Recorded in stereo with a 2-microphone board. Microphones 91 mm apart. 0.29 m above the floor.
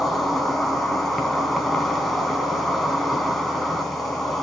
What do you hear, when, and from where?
0.0 s an insect: centre (ahead or behind), 2 m